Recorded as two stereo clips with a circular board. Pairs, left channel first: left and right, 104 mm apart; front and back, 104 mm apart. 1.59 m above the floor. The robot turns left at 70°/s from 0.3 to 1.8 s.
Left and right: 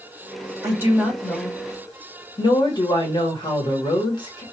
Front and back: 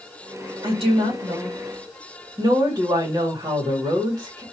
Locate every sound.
0.6 s a woman speaking: 145° right, 1.8 m; by 4.4 s 135° left, 1.8 m